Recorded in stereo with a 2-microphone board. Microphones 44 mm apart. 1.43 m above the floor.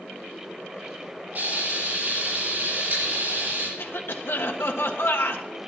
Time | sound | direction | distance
1.4 | frying | 45° right (ahead or behind) | 7 m
3.8 | a cough | 65° left (ahead or behind) | 1.5 m